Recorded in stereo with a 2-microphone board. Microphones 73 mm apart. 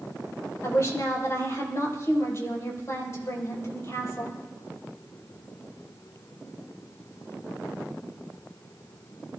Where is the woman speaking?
40° left (ahead or behind), 4 m.